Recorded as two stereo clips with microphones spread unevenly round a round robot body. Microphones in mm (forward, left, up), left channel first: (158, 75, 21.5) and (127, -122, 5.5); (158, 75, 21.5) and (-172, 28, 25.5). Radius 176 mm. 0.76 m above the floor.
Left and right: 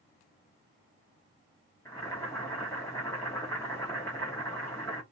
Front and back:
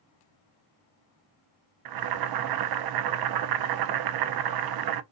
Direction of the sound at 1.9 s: 165° left.